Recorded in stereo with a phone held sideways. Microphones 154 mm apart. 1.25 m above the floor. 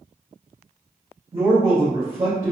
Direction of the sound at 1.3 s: 40° right (ahead or behind).